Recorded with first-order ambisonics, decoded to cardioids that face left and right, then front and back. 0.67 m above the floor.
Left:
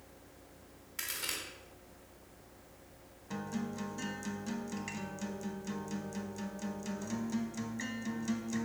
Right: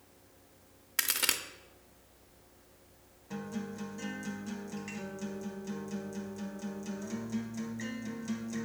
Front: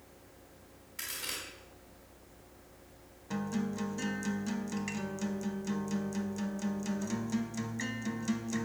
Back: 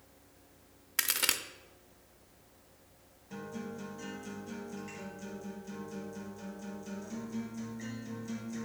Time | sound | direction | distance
1.0 | a crack | 145° right | 0.6 m
3.3 | a guitar | 20° left | 0.8 m